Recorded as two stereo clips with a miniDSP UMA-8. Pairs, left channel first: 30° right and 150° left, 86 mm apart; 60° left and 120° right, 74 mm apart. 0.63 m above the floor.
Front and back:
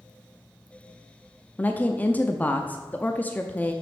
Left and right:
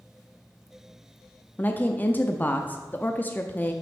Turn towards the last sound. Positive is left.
turn(degrees=25)